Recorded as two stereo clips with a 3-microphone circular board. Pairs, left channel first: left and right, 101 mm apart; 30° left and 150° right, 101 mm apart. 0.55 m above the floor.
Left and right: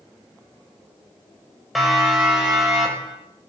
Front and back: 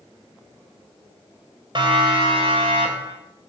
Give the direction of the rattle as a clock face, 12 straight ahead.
No rattle in this recording.